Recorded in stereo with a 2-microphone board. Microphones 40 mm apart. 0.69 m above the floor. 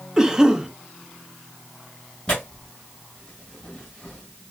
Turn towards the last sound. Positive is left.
turn(degrees=20)  # may be behind; listen again after turning